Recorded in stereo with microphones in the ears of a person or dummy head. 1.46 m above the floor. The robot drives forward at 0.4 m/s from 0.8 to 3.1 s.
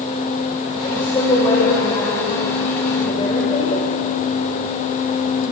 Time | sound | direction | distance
0.8 | a woman speaking | 20° left (ahead or behind) | 6 m